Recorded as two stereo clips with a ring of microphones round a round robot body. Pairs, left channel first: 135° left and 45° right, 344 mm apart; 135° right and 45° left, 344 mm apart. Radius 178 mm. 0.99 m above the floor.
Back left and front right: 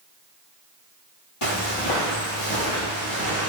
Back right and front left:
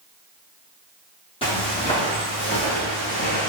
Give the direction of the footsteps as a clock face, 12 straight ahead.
7 o'clock.